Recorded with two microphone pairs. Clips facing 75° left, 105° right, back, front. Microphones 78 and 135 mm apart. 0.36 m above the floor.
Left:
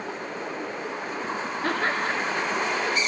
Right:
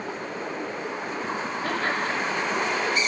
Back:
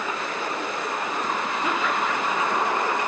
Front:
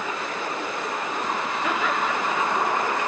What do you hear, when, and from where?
1.6 s laughter: 115° left, 4.5 m